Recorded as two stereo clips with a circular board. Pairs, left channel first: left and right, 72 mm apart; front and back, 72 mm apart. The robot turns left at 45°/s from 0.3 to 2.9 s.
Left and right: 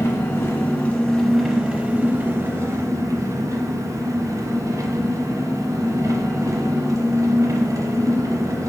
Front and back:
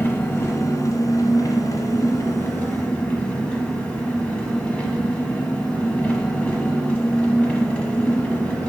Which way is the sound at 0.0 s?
45° left.